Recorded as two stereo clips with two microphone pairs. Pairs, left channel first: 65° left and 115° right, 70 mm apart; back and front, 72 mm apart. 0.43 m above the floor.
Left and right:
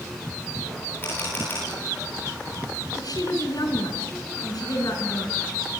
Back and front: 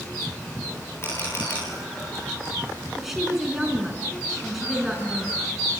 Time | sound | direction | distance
1.0 | a camera shutter | 125° left | 9 m
3.0 | a woman speaking | 85° left | 5 m